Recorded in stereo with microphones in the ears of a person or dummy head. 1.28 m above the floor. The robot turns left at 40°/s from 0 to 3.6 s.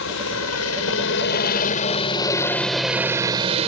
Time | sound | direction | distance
0.0 | a helicopter | 110° left | ?